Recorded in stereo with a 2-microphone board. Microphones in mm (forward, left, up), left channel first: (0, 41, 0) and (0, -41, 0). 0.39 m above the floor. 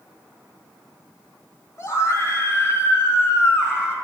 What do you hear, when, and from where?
1.8 s a scream: 35° left (ahead or behind), 2.5 m; by 4.0 s 30° left (ahead or behind), 3.5 m